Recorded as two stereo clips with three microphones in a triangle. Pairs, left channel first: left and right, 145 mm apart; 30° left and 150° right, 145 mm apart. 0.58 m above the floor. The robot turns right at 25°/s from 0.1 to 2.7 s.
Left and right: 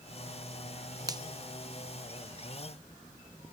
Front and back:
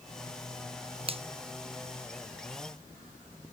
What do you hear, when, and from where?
1.1 s a finger snap: 140° right, 0.5 m; by 1.2 s 135° right, 0.5 m